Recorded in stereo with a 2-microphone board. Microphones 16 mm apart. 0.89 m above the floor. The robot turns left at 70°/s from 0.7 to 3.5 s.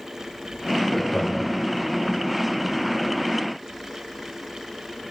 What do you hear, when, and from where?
0.9 s laughter: 10° left (ahead or behind), 3 m; by 1.6 s 55° left (ahead or behind), 3 m